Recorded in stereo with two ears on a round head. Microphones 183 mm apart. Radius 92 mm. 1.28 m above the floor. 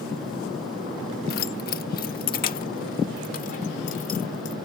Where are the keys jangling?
45° left (ahead or behind); by 4.6 s 40° left (ahead or behind).